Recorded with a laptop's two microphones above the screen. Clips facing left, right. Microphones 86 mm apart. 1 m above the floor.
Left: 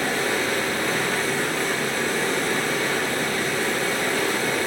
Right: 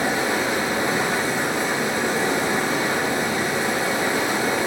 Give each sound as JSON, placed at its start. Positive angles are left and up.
{"t": 0.0, "sound": "running water", "side_deg": -20, "distance_m": 1.4}